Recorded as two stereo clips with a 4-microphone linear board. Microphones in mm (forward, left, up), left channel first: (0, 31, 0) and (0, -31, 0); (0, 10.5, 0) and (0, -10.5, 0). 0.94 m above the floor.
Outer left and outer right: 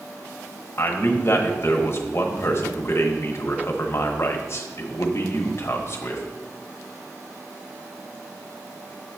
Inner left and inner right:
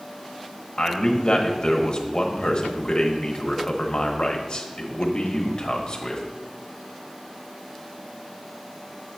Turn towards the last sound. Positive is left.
turn(degrees=45)  # may be behind; listen again after turning